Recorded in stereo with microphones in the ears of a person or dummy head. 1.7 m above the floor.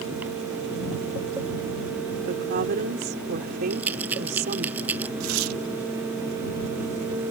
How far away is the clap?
I don't hear a clap.